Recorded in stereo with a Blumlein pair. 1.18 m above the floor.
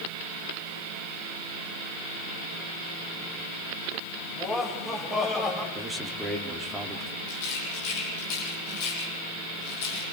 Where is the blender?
I don't hear a blender.